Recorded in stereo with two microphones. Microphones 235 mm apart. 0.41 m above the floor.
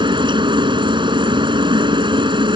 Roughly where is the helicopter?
Centre.